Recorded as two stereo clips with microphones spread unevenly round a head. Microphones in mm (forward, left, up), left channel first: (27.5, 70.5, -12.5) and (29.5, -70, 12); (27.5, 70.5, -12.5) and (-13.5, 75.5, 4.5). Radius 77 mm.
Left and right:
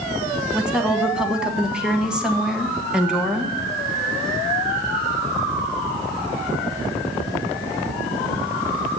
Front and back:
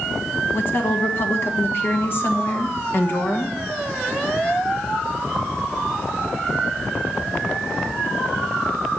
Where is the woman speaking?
Straight ahead, 1.4 m.